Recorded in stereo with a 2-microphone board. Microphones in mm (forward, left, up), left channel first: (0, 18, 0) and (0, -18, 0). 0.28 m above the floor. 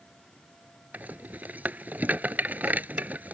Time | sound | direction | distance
0.9 | a rattle | 50° right (ahead or behind) | ?